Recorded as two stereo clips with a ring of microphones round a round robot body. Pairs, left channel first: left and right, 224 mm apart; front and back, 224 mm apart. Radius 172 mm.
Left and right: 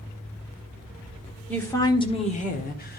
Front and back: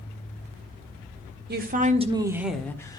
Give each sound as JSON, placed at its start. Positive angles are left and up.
{"t": 1.5, "sound": "a woman speaking", "azimuth_deg": 170, "distance_m": 1.5}